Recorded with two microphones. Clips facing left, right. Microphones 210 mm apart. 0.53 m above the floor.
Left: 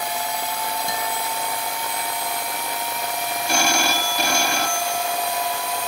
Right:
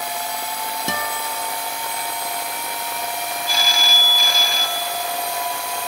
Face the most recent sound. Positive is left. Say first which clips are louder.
# left 5 dB
turn(degrees=70)  # may be behind; listen again after turning